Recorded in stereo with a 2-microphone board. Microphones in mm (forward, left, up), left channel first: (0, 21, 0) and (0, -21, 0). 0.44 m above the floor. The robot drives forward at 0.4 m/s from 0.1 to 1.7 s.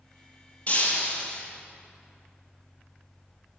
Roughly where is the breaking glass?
Left.